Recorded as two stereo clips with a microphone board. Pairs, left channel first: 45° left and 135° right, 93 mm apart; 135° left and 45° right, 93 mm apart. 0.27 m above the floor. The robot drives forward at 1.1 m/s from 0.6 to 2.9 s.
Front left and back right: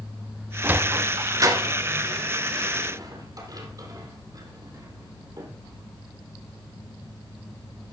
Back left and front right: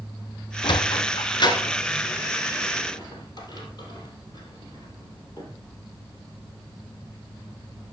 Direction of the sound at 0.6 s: 155° left.